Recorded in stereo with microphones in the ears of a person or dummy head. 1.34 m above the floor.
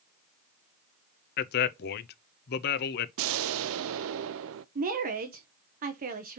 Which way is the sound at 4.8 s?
45° right (ahead or behind).